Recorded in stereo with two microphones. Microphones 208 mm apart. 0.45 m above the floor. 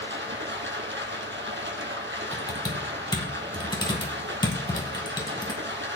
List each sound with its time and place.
0.0 s running water: 70° right (ahead or behind), 1.8 m
2.3 s typing on a keyboard: 20° left (ahead or behind), 2.0 m